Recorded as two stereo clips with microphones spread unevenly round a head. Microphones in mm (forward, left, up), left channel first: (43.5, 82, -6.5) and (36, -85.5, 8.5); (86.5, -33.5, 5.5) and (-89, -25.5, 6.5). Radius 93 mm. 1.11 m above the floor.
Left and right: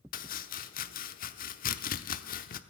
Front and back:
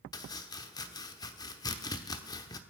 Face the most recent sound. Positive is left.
turn(degrees=65)